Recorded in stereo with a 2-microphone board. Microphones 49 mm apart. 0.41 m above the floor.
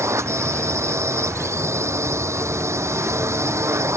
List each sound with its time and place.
0.0 s a drone: 65° right (ahead or behind)